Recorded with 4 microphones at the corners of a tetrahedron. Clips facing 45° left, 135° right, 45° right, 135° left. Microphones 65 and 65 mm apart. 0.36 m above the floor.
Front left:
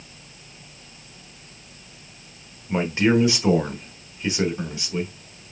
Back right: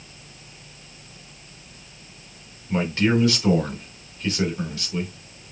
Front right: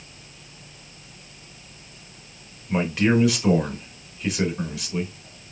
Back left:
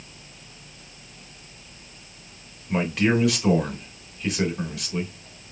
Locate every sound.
2.7 s a man speaking: 40° left, 0.9 m